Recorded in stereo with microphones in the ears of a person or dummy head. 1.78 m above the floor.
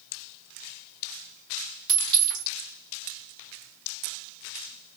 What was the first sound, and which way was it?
A clink, 45° right (ahead or behind).